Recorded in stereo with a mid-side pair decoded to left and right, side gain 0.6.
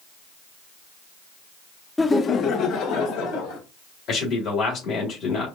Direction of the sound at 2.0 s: 10° left.